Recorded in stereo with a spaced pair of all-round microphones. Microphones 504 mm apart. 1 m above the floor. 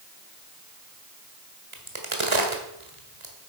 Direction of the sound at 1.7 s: 70° right (ahead or behind).